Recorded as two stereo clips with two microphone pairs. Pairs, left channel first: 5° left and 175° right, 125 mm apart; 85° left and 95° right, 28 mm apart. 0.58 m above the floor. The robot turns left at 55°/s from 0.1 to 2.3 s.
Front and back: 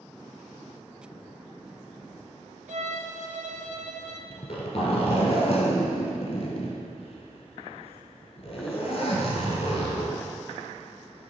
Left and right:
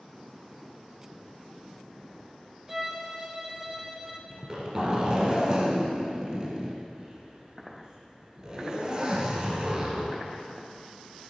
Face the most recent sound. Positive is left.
turn(degrees=-35)